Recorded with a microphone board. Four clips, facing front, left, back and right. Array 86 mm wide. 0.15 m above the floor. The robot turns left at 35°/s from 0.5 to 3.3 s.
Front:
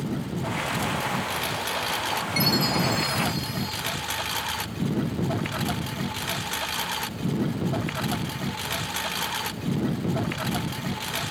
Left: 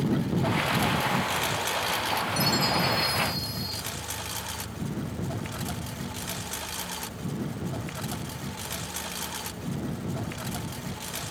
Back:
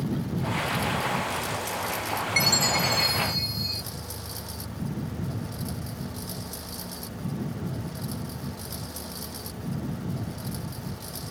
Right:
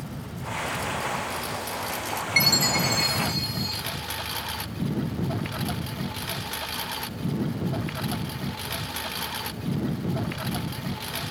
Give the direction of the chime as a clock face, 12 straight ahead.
4 o'clock.